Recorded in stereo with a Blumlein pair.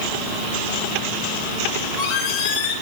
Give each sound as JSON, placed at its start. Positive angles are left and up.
{"t": 1.7, "sound": "a squeak", "azimuth_deg": 35, "distance_m": 5.0}